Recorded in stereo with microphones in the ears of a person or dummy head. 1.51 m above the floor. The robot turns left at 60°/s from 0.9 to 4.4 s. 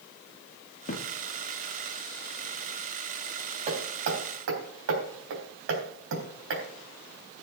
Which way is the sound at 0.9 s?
45° left (ahead or behind).